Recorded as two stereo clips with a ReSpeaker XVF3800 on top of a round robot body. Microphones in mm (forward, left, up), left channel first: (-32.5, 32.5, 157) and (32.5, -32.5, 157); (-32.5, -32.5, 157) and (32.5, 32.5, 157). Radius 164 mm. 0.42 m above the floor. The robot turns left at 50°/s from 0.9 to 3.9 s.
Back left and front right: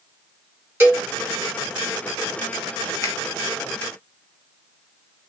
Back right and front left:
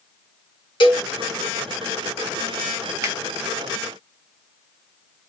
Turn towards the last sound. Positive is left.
turn(degrees=50)